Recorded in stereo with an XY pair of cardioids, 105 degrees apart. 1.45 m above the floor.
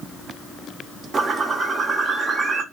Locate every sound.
1.1 s a bird: 40° right, 0.7 m